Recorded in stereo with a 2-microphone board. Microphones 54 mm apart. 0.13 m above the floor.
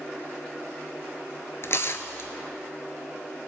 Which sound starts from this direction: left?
Tearing paper, at 1.6 s.